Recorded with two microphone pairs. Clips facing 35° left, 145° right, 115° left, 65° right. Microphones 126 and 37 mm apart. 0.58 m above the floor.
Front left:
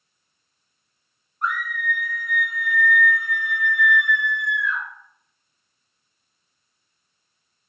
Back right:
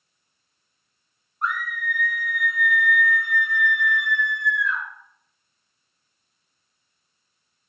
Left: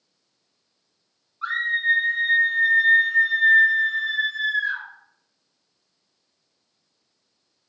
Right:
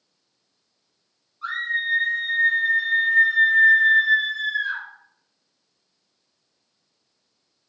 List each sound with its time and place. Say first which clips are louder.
1.4 s a scream: front left 1 dB, left 3 dB; 150° left, 0.9 m; by 4.8 s 40° right, 1.4 m